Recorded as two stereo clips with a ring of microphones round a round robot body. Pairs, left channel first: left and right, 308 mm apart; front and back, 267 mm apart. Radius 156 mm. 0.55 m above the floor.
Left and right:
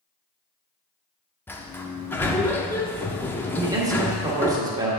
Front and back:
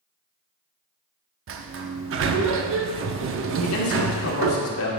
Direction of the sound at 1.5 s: 170° left.